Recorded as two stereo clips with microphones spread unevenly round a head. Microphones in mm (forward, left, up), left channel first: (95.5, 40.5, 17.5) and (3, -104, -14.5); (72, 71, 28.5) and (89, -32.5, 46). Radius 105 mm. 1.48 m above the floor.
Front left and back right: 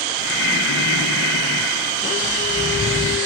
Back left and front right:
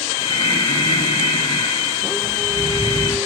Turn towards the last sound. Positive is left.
turn(degrees=60)